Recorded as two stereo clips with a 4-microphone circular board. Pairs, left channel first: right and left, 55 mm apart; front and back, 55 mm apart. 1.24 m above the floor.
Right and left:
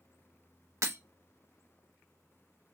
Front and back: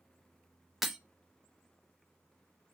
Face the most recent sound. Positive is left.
turn(degrees=95)